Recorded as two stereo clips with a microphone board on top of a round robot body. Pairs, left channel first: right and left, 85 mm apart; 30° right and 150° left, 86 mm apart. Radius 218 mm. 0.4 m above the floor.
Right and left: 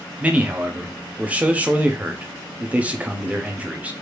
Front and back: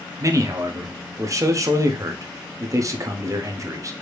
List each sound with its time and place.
0.2 s a man speaking: 155° left, 1.0 m